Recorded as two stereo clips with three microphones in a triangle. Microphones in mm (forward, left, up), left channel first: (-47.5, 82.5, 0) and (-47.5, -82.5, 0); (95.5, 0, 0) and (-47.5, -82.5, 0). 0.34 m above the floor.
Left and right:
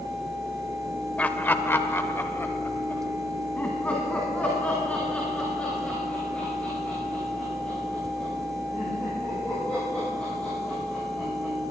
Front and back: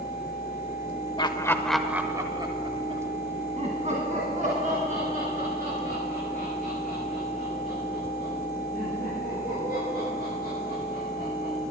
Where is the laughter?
20° left, 0.9 m; by 11.5 s 175° left, 9.5 m.